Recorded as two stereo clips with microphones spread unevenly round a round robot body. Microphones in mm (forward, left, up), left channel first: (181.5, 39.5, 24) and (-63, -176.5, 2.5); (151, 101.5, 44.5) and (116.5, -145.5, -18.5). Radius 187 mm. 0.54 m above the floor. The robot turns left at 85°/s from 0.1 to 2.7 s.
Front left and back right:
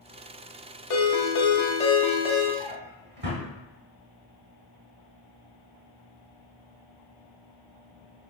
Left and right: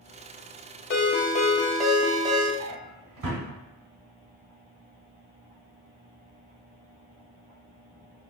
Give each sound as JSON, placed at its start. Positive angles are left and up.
{"t": 0.9, "sound": "a ringtone", "azimuth_deg": 50, "distance_m": 0.7}
{"t": 2.6, "sound": "a drawer", "azimuth_deg": -65, "distance_m": 1.0}